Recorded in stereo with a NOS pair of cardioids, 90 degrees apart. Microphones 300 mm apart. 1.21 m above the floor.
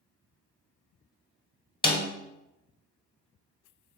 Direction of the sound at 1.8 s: 15° left.